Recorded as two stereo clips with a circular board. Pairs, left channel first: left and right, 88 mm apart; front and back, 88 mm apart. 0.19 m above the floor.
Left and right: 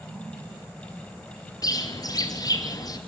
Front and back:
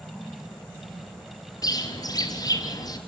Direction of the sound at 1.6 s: 45° left.